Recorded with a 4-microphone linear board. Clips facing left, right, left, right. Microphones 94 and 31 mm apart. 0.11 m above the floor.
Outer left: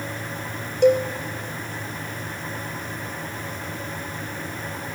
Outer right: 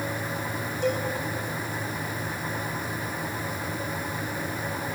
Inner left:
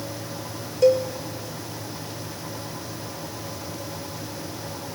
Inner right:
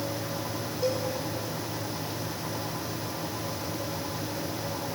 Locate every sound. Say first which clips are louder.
0.8 s a cowbell: outer left 11 dB, inner left 12 dB; 75° left (ahead or behind), 1.2 m